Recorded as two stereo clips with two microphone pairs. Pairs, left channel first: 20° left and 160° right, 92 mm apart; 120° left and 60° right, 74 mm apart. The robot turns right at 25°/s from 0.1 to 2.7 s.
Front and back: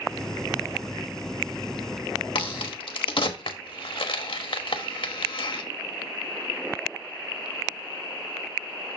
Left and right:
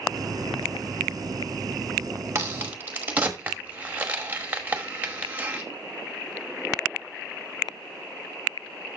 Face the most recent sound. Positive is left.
turn(degrees=5)